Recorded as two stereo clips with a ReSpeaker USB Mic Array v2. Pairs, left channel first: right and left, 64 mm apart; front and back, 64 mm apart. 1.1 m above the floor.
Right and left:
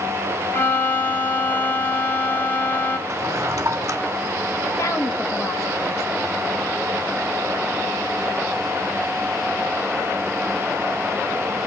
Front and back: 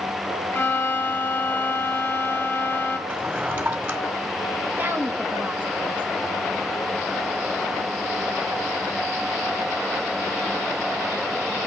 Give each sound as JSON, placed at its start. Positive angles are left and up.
{"t": 0.5, "sound": "a violin", "azimuth_deg": -40, "distance_m": 1.3}
{"t": 3.1, "sound": "a drawer", "azimuth_deg": 130, "distance_m": 1.4}
{"t": 4.8, "sound": "a woman speaking", "azimuth_deg": -120, "distance_m": 2.0}